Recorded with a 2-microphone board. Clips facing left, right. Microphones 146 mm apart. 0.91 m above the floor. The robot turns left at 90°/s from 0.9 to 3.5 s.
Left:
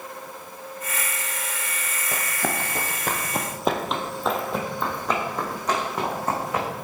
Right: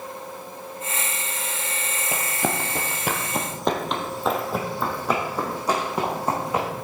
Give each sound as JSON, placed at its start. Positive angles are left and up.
{"t": 2.1, "sound": "running footsteps", "side_deg": -15, "distance_m": 1.0}